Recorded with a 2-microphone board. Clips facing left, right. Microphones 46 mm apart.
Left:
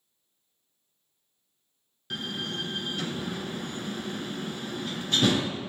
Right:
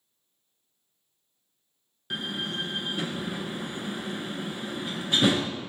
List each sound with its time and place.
2.1 s a door slam: 15° right (ahead or behind), 0.8 m